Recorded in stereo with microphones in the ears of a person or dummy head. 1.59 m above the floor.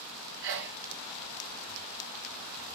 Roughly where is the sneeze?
Right.